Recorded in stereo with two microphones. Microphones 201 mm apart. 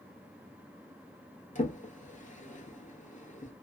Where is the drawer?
40° left (ahead or behind), 1.0 m.